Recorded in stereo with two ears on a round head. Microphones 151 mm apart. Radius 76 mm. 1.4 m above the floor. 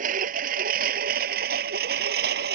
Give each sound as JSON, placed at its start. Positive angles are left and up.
{"t": 0.0, "sound": "a lawn mower", "side_deg": -50}